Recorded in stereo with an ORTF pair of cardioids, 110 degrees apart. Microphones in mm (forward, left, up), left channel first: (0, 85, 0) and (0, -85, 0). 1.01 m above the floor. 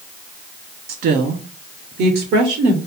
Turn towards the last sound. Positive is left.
turn(degrees=-75)